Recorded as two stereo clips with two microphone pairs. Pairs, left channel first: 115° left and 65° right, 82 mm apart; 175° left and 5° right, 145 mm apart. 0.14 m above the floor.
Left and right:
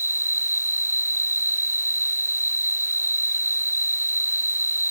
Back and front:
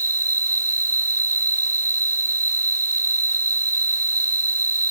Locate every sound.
0.0 s an insect: 5° right